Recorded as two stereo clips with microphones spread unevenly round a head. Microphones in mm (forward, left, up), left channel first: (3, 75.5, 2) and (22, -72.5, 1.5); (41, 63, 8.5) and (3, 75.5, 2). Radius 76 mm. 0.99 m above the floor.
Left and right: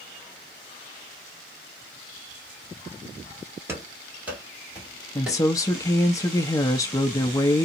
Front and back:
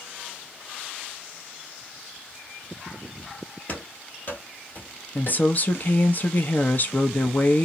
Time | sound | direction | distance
3.7 | running footsteps | 10° right | 1.3 m
5.2 | a woman speaking | 30° left | 0.8 m